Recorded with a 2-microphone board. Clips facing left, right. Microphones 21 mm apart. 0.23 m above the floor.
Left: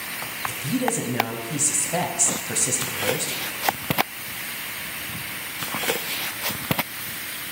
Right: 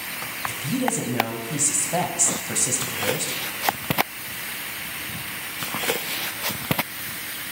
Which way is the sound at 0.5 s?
10° right (ahead or behind).